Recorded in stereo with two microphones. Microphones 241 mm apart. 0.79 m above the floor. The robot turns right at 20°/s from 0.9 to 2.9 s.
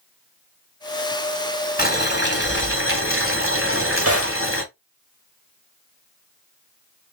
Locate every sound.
1.8 s boiling: 40° left (ahead or behind), 3 m; by 4.6 s 60° left (ahead or behind), 3 m
3.6 s a drawer: 85° right, 2.5 m